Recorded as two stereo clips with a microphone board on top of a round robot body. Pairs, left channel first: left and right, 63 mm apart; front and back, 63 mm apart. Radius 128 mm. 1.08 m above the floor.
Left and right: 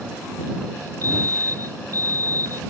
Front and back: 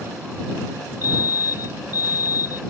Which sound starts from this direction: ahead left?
A fire alarm, at 1.0 s.